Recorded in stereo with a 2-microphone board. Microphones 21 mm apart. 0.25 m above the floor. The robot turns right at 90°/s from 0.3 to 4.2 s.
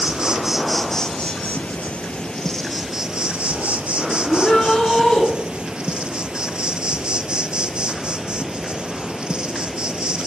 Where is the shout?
45° left (ahead or behind), 4 m.